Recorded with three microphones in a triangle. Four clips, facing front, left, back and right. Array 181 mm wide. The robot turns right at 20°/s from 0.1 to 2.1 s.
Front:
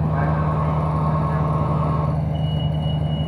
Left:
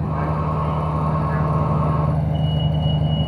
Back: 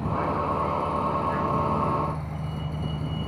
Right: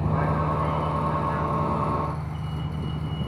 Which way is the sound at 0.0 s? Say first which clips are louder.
Left 2 dB, front 4 dB; straight ahead.